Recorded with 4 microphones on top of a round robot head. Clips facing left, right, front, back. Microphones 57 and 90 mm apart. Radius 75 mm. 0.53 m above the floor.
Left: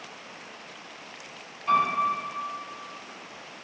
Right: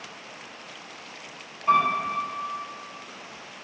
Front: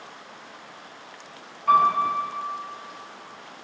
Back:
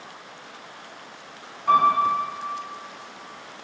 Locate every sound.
1.7 s a piano: 105° right, 1.1 m